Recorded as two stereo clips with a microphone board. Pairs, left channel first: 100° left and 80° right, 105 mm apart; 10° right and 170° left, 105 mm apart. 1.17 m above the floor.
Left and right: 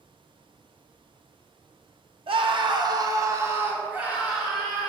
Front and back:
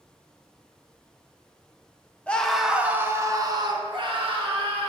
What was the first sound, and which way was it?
A scream, 90° right.